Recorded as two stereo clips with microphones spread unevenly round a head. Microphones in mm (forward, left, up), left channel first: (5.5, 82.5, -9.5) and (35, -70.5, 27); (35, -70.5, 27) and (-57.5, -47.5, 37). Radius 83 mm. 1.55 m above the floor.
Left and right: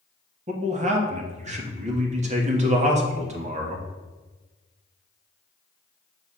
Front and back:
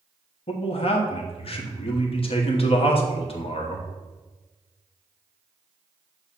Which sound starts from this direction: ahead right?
A man speaking, at 0.5 s.